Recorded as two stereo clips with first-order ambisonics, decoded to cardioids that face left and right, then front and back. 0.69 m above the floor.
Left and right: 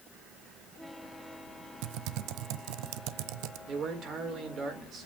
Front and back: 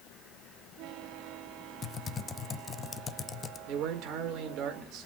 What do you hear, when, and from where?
1.8 s typing on a keyboard: 70° right, 0.5 m
3.7 s a man speaking: 145° right, 2 m